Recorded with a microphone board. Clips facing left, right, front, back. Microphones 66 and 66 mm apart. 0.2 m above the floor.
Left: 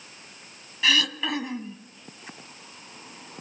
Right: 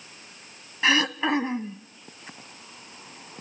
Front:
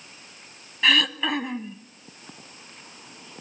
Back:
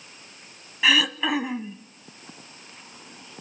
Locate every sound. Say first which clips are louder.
0.8 s throat clearing: right 3 dB, even; 95° right, 0.7 m